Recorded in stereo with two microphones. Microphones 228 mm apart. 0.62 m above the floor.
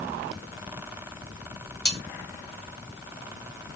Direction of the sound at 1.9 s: 45° left (ahead or behind).